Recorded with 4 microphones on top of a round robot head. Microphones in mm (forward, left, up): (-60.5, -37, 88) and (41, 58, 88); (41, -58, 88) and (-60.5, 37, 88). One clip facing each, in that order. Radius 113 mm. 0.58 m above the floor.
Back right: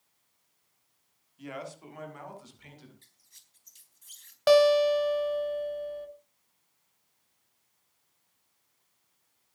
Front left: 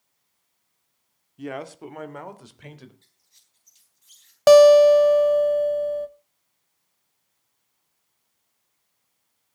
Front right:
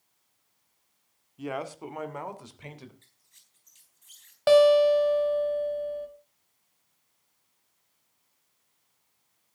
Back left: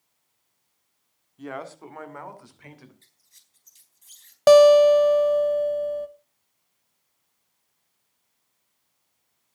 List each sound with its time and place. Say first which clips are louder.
1.4 s a man speaking: front left 7 dB, front right 2 dB; 35° left, 1.8 m; by 2.9 s 20° left, 3 m
3.0 s a squeak: even, back left 1 dB; 170° right, 4 m
4.5 s a guitar: front left 10 dB, back left 6 dB; 85° left, 0.7 m